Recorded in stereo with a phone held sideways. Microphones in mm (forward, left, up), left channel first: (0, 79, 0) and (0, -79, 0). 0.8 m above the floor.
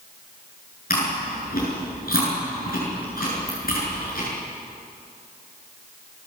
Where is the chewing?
70° left (ahead or behind), 8 m.